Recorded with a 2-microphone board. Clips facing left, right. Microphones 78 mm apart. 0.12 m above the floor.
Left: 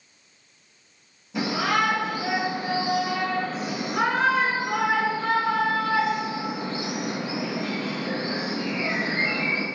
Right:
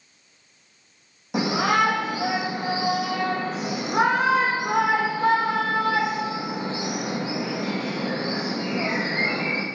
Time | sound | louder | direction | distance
1.3 | a shout | right 3 dB | 75° right (ahead or behind) | 5 m